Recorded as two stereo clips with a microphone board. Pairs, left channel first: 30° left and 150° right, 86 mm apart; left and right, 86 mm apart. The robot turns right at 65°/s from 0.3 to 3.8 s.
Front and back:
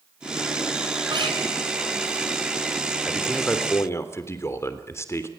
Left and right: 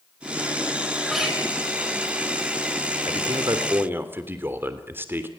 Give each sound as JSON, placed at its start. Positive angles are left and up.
{"t": 1.1, "sound": "a guitar", "azimuth_deg": 175, "distance_m": 10.0}
{"t": 3.0, "sound": "a man speaking", "azimuth_deg": -75, "distance_m": 3.0}